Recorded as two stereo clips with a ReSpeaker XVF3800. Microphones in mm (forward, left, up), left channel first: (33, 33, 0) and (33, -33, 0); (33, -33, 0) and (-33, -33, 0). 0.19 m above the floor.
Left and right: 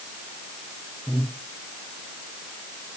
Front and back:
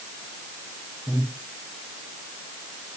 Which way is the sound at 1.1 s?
160° right.